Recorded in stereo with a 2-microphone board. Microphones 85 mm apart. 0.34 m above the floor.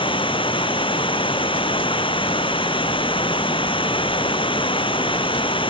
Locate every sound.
0.0 s running water: 85° left